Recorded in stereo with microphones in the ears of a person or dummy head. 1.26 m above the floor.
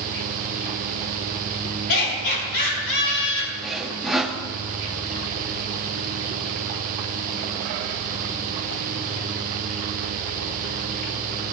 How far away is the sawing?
About 1.0 m.